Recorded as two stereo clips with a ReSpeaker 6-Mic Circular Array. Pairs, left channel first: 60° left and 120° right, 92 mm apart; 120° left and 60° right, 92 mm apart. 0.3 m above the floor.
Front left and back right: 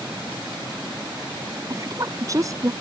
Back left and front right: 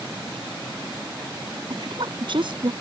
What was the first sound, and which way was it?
A woman speaking, 75° right.